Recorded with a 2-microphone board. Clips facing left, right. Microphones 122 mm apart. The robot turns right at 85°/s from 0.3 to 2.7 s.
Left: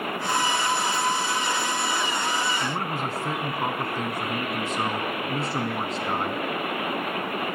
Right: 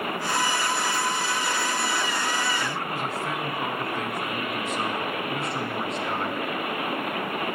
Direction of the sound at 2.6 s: 35° left (ahead or behind).